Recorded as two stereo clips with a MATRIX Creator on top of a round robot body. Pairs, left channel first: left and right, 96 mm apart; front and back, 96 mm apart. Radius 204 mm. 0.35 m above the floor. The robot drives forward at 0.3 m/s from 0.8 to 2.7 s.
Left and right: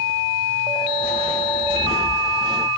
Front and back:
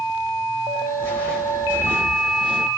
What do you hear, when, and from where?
1.0 s footsteps: 70° left, 1.0 m; by 2.7 s 155° left, 1.0 m